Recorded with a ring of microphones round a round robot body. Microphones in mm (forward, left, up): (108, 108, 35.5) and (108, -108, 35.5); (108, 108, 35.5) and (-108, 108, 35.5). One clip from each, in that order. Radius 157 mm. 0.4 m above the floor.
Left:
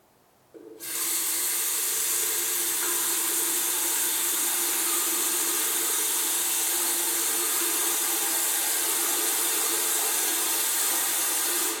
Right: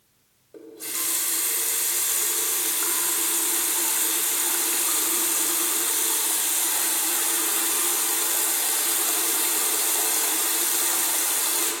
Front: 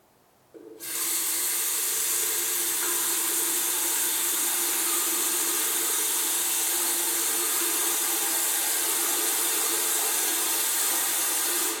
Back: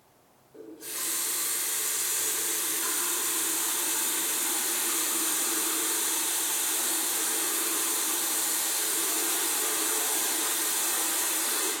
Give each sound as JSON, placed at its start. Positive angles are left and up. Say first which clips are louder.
{"t": 0.5, "sound": "a running tap", "louder": "right 2 dB, front 3 dB", "azimuth_deg": -30, "distance_m": 1.3}